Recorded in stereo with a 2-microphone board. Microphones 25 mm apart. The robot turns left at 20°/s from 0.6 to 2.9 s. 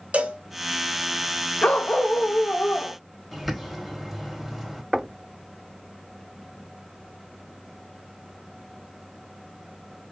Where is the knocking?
5° right (ahead or behind), 0.7 m.